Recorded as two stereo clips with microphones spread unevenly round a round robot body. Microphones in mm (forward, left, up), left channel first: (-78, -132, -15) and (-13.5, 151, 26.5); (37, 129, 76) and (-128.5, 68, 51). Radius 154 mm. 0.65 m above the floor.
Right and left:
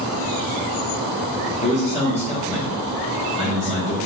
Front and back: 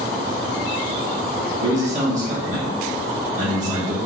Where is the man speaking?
155° right, 1.2 m.